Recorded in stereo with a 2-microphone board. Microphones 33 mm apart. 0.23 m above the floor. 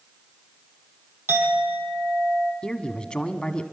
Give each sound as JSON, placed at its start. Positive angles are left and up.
{"t": 1.3, "sound": "a clink", "side_deg": -75, "distance_m": 5.0}
{"t": 2.6, "sound": "a man speaking", "side_deg": 30, "distance_m": 1.4}